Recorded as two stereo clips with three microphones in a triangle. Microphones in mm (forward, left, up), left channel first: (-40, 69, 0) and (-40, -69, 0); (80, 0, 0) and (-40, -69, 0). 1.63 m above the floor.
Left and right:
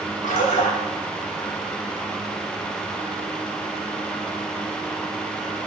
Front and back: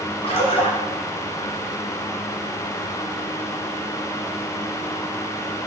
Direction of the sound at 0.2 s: 75° left.